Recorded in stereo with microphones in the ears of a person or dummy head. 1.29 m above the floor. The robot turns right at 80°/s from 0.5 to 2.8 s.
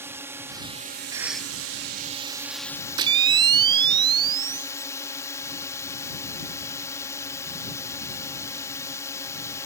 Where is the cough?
20° right; by 1.5 s 15° left.